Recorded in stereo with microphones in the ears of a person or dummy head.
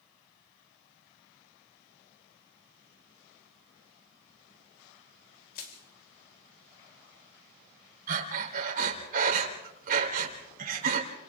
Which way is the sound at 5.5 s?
50° left (ahead or behind).